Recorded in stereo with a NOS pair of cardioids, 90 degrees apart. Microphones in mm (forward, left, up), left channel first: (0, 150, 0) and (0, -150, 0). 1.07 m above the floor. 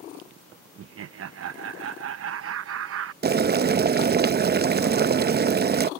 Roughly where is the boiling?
Ahead right.